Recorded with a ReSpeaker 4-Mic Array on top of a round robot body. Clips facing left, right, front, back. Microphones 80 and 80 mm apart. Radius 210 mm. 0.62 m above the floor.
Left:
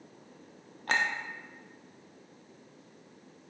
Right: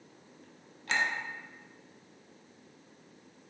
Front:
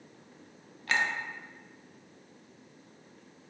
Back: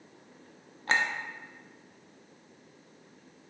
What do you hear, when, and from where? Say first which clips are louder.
0.9 s a clink: left 1 dB, back 1 dB; 125° left, 0.6 m